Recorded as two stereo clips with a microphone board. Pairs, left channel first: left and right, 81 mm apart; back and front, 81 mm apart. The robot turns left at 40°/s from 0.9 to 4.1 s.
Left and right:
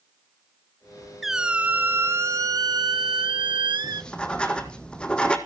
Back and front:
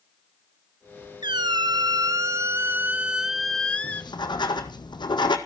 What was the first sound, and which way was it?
A squeak, straight ahead.